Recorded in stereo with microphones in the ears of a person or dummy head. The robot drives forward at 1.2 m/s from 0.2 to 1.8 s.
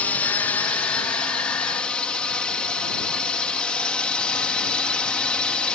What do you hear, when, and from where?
0.0 s a drone: 10° left (ahead or behind); by 5.8 s 5° left (ahead or behind)